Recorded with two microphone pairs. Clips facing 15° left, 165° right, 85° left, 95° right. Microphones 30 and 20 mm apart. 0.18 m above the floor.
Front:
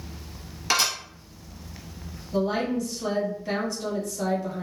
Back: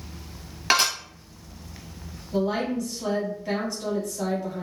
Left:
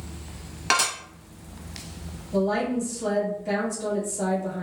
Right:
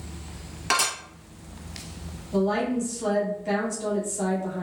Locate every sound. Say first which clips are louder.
0.7 s dishes clattering: back 2 dB, left 1 dB; 150° left, 1.2 m
2.3 s a woman speaking: even, even; 110° right, 1.6 m